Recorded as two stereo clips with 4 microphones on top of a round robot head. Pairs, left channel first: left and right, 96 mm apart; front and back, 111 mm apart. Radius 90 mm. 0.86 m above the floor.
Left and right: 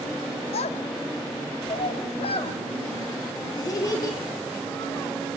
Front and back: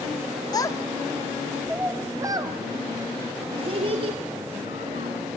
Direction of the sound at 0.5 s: 55° left.